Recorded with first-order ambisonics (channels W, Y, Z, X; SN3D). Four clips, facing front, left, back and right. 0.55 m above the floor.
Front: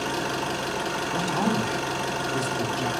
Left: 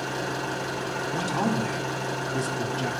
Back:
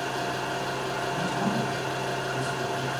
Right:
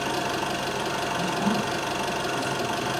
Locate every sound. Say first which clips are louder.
0.0 s an engine running: right 3 dB, front 2 dB; 50° right, 4 m
1.1 s a man speaking: left 1 dB, front 4 dB; 35° left, 1.5 m